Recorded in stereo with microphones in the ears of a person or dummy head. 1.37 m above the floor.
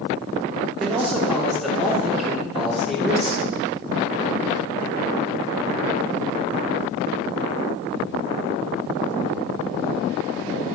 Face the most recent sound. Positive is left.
turn(degrees=-5)  # may be behind; listen again after turning